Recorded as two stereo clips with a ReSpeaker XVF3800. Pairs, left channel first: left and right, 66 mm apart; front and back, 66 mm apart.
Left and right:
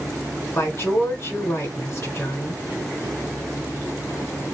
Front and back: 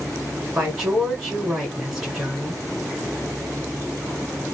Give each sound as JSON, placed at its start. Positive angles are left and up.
{"t": 0.6, "sound": "a woman speaking", "azimuth_deg": 100, "distance_m": 2.0}